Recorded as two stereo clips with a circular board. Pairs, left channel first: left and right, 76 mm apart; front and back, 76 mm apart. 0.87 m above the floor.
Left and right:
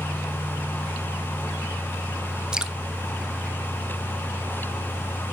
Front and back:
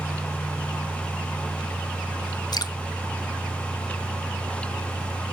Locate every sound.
2.5 s dripping: 15° right, 0.6 m